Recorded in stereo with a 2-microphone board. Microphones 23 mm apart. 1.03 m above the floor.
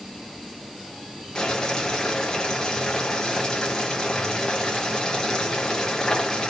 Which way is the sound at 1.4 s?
30° left (ahead or behind).